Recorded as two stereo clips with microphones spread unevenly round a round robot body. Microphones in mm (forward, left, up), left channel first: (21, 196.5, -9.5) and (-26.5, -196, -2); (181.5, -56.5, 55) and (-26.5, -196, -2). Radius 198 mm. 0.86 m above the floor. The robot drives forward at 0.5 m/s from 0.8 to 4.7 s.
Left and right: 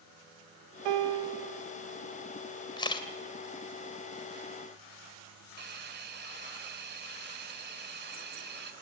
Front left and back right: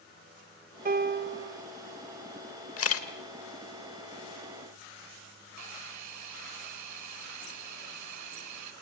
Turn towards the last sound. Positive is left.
turn(degrees=-165)